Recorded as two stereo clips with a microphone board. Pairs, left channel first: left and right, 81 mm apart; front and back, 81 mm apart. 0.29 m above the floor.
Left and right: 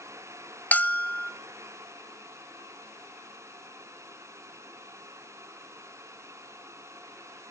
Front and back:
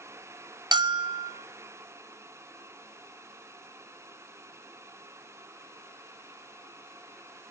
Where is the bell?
160° left, 0.8 m.